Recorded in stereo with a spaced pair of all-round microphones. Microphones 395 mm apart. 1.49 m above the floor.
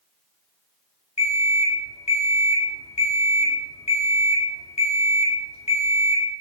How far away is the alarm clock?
About 0.7 m.